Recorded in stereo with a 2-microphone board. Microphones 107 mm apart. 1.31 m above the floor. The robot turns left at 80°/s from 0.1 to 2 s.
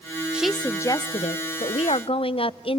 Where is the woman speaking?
170° right, 0.5 m; by 2.8 s 60° left, 0.5 m.